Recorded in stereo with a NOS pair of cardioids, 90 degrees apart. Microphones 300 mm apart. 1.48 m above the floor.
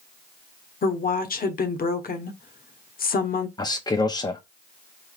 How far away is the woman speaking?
About 1.0 m.